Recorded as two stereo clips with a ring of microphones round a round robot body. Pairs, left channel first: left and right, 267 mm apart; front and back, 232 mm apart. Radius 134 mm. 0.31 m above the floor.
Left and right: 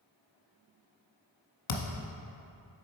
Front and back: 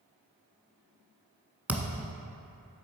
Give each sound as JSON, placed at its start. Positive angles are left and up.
{"t": 1.7, "sound": "a thud", "azimuth_deg": 95, "distance_m": 0.8}